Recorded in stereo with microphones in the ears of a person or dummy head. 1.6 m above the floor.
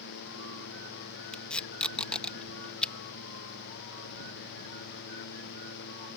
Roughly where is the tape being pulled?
Centre.